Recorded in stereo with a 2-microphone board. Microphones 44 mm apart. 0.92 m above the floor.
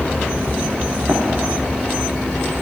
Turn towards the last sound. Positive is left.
turn(degrees=-70)  # may be behind; listen again after turning